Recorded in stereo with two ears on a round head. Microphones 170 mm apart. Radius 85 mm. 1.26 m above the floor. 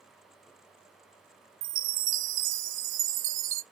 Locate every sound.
1.6 s a chime: 70° right (ahead or behind), 0.6 m